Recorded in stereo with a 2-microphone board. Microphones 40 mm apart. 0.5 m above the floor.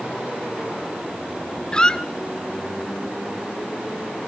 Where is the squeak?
20° left (ahead or behind), 0.9 m.